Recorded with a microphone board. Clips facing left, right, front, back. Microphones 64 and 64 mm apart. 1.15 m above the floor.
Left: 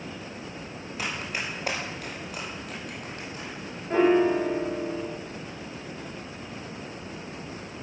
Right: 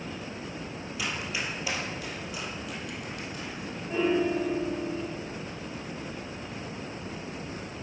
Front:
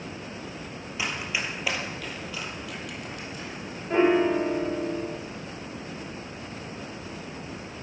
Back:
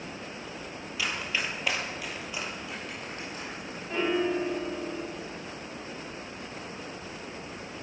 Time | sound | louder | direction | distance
1.0 | running footsteps | left 1 dB, front 1 dB | 60° left | 1.9 m
3.9 | a piano | left 6 dB, front 7 dB | 55° left | 0.6 m